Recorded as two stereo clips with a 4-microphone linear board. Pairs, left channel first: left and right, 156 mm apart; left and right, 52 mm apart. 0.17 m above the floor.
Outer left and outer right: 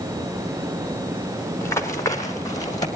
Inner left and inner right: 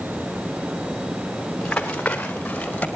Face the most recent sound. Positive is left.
turn(degrees=25)  # may be behind; listen again after turning